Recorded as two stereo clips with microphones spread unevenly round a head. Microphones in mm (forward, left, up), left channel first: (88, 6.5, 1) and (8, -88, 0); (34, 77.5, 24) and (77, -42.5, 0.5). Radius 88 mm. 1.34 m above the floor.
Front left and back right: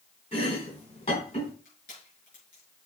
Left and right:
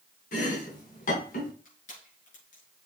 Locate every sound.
0.3 s chopping: 110° left, 4.5 m
1.6 s crushing: 95° left, 6.5 m